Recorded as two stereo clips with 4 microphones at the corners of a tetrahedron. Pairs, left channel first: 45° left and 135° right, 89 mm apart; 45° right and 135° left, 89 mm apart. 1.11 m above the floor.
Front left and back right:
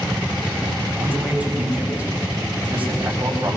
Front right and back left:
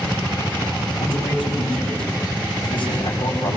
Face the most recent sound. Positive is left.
turn(degrees=-60)